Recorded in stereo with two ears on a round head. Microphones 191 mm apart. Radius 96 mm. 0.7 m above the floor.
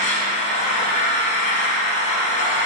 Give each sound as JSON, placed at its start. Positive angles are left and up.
{"t": 0.0, "sound": "an engine running", "side_deg": 35, "distance_m": 2.0}